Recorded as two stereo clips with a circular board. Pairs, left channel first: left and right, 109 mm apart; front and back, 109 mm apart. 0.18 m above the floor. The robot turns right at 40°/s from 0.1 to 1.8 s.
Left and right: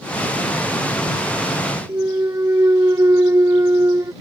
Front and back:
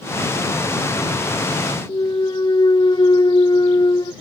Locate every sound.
1.9 s a clunk: 35° right